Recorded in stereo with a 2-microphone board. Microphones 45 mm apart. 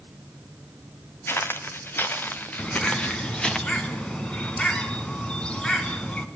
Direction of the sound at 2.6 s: 20° left (ahead or behind).